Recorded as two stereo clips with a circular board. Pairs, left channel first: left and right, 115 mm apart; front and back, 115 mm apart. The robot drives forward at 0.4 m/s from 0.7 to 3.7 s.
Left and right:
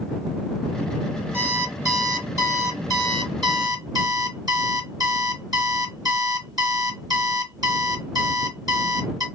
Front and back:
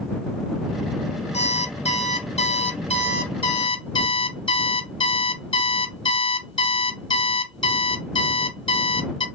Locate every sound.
1.3 s an alarm clock: 20° right, 1.9 m; by 9.3 s 40° right, 1.2 m